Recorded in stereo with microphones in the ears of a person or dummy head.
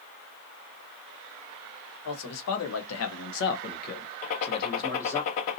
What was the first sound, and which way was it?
A man speaking, 80° left.